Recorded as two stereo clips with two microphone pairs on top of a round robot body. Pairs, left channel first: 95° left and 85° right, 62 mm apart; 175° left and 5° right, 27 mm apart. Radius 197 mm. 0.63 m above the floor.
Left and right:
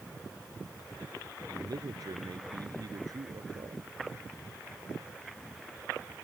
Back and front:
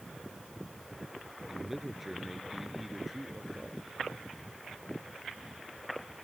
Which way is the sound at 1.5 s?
90° right.